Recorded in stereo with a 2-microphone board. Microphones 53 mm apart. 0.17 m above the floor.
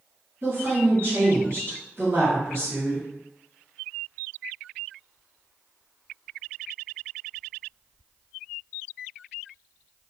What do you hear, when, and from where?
0.4 s a woman speaking: 50° right (ahead or behind), 1.9 m